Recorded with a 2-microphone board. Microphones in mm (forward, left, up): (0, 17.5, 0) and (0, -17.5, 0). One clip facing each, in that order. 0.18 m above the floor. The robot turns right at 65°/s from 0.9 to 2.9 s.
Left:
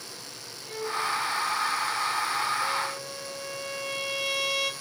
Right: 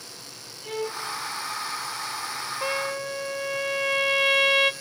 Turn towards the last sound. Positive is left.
turn(degrees=-40)  # may be behind; listen again after turning